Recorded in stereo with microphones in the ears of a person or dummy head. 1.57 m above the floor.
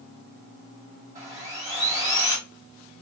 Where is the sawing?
30° right (ahead or behind), 1.9 m.